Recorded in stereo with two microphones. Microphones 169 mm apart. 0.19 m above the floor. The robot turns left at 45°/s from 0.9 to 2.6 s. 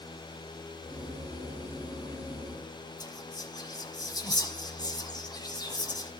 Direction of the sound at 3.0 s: 25° left (ahead or behind).